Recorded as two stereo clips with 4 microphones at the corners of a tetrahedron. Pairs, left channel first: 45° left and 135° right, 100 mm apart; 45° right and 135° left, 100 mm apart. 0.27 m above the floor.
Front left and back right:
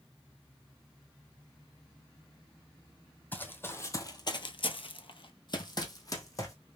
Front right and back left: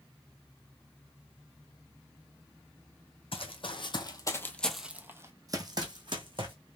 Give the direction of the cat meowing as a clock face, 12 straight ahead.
I don't hear a cat meowing.